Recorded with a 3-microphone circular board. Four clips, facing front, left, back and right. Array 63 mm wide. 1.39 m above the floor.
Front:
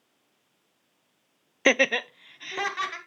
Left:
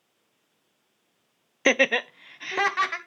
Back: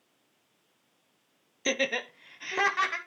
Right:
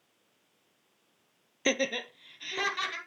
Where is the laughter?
35° left, 0.5 m; by 3.0 s 105° left, 2 m.